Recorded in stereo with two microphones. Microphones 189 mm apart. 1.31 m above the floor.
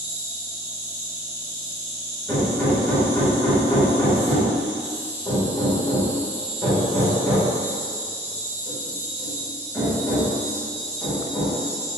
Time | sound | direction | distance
0.0 | an insect | 10° right (ahead or behind) | 1.6 m
2.3 | hammering | 15° left (ahead or behind) | 1.5 m